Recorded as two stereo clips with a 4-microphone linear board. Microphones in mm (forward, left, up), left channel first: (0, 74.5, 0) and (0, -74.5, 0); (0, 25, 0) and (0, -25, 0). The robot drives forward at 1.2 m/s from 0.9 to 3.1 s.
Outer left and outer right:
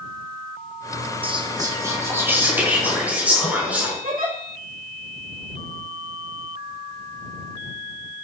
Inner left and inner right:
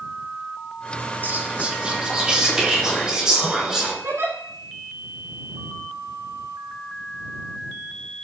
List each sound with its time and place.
1.2 s whispering: 40° right (ahead or behind), 0.9 m; by 3.9 s 10° right (ahead or behind), 3 m
4.0 s a giggle: 65° right (ahead or behind), 3 m